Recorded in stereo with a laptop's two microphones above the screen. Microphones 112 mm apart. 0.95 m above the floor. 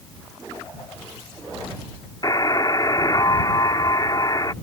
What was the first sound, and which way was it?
A buzzer, 35° left (ahead or behind).